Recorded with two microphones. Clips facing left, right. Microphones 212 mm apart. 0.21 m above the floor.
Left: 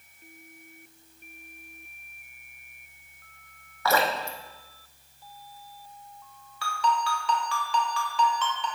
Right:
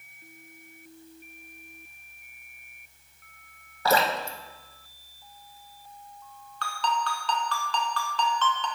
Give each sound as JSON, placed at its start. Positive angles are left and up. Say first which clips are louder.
{"t": 3.9, "sound": "dripping", "louder": "right 1 dB", "side_deg": -30, "distance_m": 0.6}
{"t": 6.6, "sound": "a ringtone", "louder": "left 2 dB", "side_deg": 10, "distance_m": 0.7}